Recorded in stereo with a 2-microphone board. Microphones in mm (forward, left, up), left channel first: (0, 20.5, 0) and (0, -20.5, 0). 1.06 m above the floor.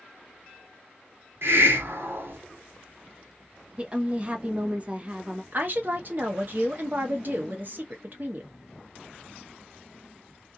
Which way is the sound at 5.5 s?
45° right (ahead or behind).